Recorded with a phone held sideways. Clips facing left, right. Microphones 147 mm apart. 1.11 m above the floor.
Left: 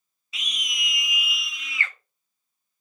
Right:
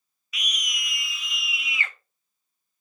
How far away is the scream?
About 1.4 m.